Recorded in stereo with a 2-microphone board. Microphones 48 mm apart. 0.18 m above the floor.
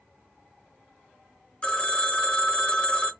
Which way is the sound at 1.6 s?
25° left (ahead or behind).